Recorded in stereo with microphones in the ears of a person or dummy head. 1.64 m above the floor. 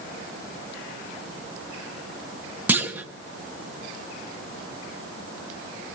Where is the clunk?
10° right (ahead or behind), 1.0 m.